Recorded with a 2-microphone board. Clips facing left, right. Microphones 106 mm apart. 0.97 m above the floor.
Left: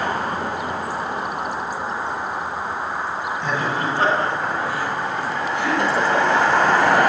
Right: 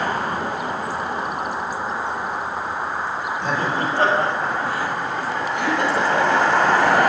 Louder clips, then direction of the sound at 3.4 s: Right 1 dB; 60° right (ahead or behind).